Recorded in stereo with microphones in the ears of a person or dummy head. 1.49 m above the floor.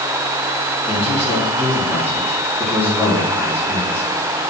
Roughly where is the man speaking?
Centre.